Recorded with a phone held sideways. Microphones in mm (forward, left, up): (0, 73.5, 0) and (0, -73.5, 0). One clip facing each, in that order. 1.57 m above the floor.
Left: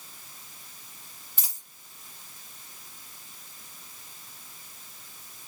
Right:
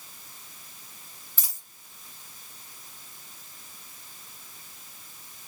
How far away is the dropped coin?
About 1.5 m.